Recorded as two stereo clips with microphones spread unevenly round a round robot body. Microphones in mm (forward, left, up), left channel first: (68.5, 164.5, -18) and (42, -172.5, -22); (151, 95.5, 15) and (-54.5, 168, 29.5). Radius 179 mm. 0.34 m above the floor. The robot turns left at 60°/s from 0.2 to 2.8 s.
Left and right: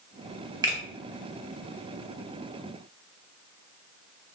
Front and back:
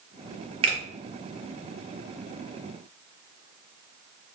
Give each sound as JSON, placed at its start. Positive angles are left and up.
{"t": 0.6, "sound": "a finger snap", "azimuth_deg": -160, "distance_m": 0.6}